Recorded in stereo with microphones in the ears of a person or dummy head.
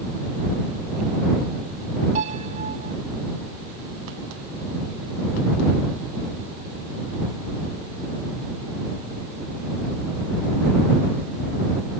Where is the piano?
40° right (ahead or behind).